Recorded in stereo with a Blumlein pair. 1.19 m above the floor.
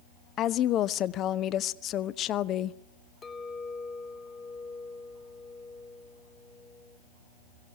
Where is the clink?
20° left, 1.8 m.